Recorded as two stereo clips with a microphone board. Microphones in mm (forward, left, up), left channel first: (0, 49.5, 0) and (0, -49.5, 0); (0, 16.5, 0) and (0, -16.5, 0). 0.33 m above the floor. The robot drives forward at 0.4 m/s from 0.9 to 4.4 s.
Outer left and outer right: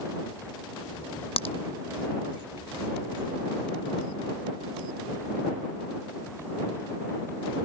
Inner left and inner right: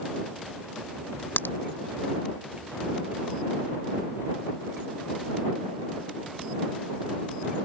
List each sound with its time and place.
1.4 s a crack: 85° left